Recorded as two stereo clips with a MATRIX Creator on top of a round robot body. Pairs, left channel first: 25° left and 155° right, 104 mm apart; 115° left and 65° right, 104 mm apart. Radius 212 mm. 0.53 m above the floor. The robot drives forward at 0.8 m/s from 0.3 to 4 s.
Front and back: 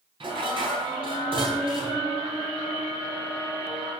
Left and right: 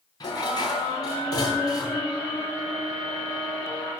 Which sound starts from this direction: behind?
Dishes clattering, at 0.2 s.